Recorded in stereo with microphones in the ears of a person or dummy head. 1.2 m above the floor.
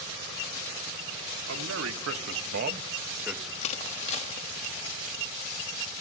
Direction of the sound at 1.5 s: 80° right.